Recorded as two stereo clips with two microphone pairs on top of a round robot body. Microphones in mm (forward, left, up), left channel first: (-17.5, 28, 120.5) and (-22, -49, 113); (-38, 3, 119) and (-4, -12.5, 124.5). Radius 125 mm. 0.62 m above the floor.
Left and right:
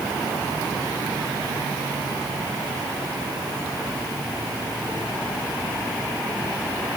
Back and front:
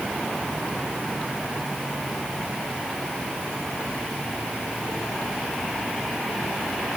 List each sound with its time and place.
Only background noise.